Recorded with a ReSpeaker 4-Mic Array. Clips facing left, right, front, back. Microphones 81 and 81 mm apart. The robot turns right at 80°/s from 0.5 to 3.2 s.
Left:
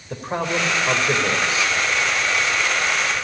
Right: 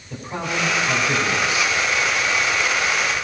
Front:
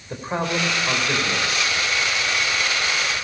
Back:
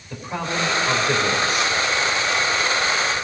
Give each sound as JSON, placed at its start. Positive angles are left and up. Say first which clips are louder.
{"t": 0.1, "sound": "a man speaking", "louder": "left 3 dB, front 2 dB", "azimuth_deg": 60, "distance_m": 3.0}